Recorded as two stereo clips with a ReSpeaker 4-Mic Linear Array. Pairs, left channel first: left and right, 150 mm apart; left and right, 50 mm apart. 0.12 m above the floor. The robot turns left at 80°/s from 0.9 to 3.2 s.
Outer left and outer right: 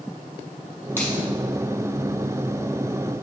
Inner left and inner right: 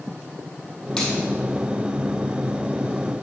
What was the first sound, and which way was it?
A finger snap, 15° left (ahead or behind).